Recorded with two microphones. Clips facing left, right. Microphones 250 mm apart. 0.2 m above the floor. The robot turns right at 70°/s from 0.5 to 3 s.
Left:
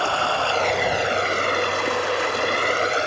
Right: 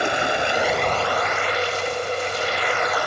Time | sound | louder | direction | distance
0.0 | running water | right 2 dB | 20° right | ?